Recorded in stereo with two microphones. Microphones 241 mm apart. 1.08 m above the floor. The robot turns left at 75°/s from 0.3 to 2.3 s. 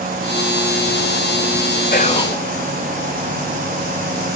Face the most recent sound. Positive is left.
turn(degrees=10)  # may be behind; listen again after turning